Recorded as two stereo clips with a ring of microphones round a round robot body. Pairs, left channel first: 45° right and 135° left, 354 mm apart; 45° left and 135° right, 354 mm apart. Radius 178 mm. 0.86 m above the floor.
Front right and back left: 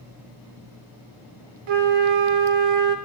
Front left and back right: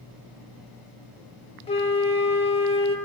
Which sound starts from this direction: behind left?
A flute, at 1.7 s.